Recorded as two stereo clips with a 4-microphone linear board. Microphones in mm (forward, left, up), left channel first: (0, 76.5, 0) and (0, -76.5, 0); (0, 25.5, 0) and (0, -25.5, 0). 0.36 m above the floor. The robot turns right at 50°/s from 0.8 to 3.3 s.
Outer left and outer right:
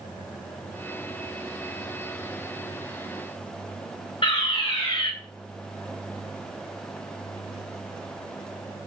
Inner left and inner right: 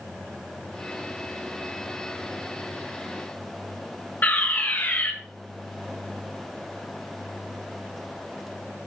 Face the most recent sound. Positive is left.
turn(degrees=35)  # may be behind; listen again after turning